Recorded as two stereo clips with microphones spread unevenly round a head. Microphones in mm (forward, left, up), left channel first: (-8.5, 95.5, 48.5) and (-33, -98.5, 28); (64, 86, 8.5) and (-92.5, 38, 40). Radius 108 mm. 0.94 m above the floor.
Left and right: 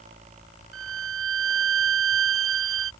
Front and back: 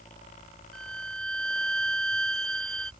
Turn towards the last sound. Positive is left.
turn(degrees=-70)